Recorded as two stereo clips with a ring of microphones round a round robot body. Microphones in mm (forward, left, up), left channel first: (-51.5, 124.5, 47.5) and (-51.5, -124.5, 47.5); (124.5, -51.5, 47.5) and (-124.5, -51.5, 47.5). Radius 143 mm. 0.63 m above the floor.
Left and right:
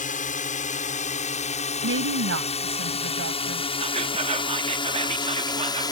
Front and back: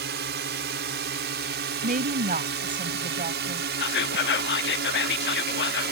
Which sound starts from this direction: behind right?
A woman speaking, at 1.8 s.